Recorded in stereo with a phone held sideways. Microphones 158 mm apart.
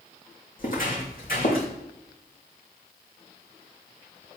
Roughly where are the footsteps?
Left.